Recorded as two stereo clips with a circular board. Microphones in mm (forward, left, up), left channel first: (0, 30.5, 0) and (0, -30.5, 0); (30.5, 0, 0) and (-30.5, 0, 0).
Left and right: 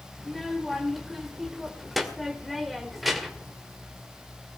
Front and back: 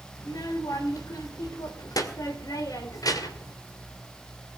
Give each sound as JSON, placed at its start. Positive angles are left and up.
{"t": 0.2, "sound": "a child speaking", "azimuth_deg": 0, "distance_m": 2.5}